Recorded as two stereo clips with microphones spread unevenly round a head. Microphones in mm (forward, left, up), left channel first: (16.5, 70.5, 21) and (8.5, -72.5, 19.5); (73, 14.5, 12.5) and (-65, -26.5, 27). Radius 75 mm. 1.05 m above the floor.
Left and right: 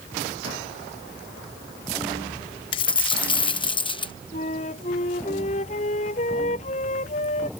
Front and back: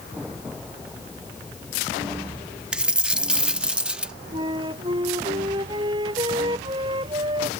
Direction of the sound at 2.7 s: 125° left.